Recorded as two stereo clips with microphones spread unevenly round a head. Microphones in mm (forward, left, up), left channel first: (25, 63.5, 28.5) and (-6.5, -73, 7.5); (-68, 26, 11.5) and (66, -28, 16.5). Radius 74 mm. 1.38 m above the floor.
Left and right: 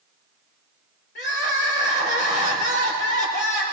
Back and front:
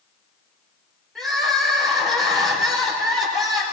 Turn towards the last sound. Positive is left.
turn(degrees=70)